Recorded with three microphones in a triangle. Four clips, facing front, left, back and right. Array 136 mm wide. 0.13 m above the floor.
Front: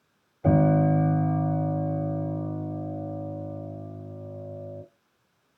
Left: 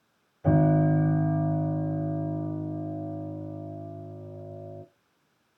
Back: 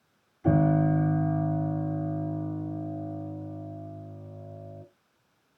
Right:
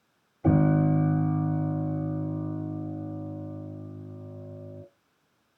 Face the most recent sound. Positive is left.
turn(degrees=-25)